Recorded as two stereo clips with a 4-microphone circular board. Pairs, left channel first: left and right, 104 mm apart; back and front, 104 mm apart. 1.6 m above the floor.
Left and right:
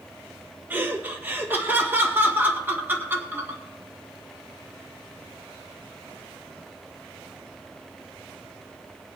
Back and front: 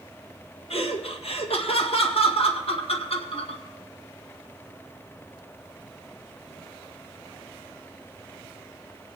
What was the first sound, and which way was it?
Laughter, 160° right.